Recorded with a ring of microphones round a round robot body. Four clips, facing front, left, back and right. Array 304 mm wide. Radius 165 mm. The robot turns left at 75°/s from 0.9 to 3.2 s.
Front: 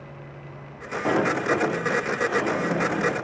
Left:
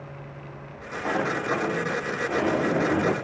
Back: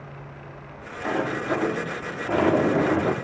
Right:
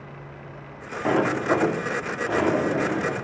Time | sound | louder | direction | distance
1.1 | a sliding door | right 5 dB, front 3 dB | 50° right | 0.7 m